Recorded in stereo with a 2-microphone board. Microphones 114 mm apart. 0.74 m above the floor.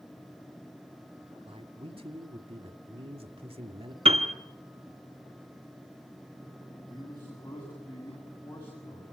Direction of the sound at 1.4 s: 55° right (ahead or behind).